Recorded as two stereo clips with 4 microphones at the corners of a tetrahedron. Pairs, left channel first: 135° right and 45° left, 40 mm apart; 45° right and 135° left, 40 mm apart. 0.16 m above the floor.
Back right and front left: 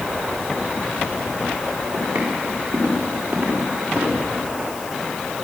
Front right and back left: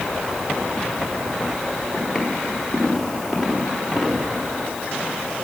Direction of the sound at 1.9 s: 45° left.